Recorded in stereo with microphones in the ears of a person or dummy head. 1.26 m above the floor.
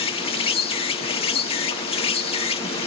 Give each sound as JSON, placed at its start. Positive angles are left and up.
{"t": 0.0, "sound": "an insect", "side_deg": 25}